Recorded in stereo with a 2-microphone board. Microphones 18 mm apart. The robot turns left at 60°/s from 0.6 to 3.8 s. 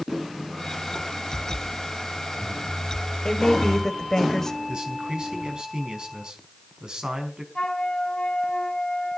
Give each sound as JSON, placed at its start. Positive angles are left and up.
{"t": 3.2, "sound": "a woman speaking", "azimuth_deg": 60, "distance_m": 2.0}
{"t": 4.7, "sound": "a man speaking", "side_deg": -55, "distance_m": 4.5}
{"t": 7.5, "sound": "a flute", "side_deg": 50, "distance_m": 3.5}